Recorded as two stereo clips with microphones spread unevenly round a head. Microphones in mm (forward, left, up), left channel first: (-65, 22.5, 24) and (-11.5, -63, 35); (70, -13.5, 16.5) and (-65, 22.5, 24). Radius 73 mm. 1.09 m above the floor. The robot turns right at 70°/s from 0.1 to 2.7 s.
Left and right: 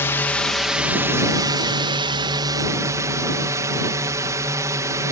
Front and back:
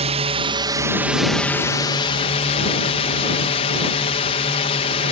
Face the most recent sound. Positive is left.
turn(degrees=-5)